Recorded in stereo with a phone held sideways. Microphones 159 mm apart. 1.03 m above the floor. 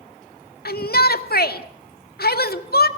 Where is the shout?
80° left, 1.8 m.